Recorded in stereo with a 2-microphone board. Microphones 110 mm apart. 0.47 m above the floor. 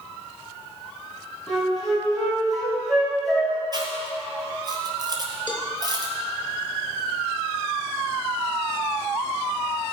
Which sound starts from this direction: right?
Chewing, at 3.7 s.